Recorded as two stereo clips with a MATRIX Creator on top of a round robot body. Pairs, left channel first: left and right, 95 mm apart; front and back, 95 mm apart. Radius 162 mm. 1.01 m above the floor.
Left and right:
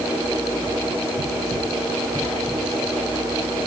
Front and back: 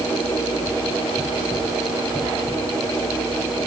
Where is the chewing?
No chewing in this recording.